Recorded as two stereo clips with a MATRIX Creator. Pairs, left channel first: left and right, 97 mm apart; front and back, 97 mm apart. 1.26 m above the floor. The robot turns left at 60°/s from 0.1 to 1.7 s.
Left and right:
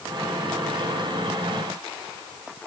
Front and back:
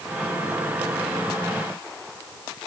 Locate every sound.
Only background noise.